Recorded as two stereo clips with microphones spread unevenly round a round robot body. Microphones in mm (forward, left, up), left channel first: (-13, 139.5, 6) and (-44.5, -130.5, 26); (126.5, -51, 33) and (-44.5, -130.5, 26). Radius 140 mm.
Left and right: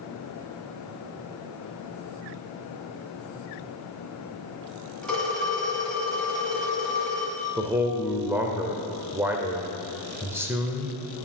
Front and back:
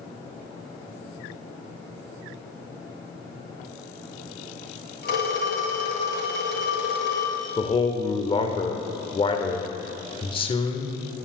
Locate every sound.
5.0 s a phone ringing: 5° right, 2.5 m
7.6 s a man speaking: 15° right, 1.3 m